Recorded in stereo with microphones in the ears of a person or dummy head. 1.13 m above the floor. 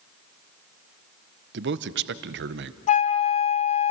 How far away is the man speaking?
About 0.7 m.